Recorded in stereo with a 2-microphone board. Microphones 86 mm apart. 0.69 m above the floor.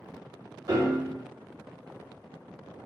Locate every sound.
0.7 s a piano: 45° right (ahead or behind), 1.5 m